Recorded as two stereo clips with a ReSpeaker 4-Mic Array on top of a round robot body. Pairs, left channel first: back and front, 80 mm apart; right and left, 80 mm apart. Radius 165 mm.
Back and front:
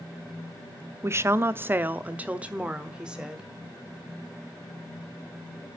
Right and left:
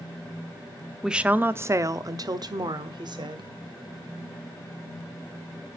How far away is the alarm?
I don't hear an alarm.